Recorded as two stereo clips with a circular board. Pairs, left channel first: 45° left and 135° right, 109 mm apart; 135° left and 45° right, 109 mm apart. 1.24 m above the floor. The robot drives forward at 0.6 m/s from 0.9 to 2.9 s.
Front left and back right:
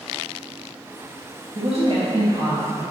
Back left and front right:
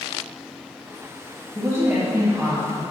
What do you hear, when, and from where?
1.6 s a woman speaking: 110° right, 1.8 m; by 2.8 s 130° right, 2 m